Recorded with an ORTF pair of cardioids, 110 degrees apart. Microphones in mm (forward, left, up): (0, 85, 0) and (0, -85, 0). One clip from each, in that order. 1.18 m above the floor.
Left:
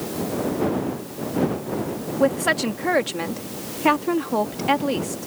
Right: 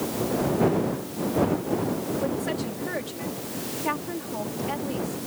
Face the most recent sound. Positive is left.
turn(degrees=70)